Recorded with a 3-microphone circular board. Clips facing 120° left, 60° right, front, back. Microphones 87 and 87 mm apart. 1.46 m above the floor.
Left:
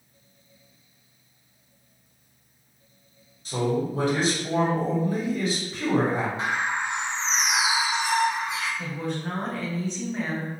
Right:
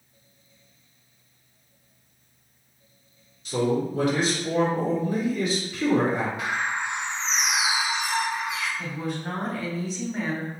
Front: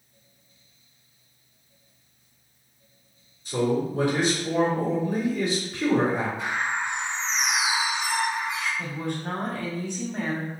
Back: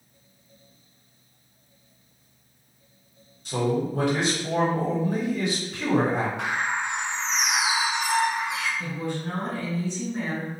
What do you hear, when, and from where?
3.5 s a man speaking: 175° left, 1.4 m
6.4 s a bird: 175° left, 0.6 m
8.8 s a woman speaking: 30° left, 0.9 m